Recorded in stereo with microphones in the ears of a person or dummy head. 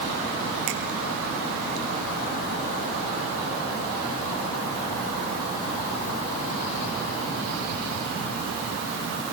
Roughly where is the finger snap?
Right.